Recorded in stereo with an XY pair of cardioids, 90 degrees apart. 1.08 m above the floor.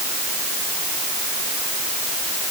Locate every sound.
Only background noise.